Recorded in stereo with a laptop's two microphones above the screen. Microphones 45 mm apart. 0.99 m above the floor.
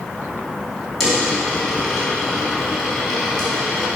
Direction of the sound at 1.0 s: 5° left (ahead or behind).